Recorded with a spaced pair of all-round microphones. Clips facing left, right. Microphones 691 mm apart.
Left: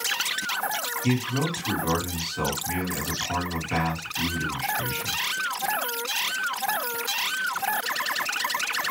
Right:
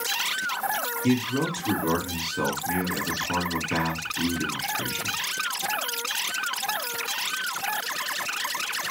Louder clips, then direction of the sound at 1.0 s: Right 2 dB; 15° left (ahead or behind).